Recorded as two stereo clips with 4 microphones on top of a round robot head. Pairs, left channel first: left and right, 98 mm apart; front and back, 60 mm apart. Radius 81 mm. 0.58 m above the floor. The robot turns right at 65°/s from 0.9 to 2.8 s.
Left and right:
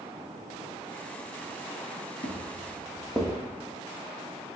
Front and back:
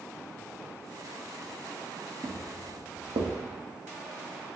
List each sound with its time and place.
2.2 s footsteps: 115° left, 1.4 m; by 3.3 s 175° right, 1.5 m